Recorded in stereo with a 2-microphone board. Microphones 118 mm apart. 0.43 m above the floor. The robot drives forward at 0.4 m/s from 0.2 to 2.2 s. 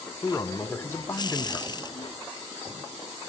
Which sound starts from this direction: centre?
A man speaking, at 0.2 s.